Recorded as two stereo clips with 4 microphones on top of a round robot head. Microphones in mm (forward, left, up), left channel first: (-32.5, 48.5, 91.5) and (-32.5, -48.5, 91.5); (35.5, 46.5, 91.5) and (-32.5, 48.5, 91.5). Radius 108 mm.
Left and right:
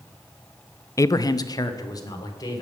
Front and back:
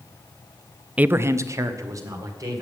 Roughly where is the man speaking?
Behind left.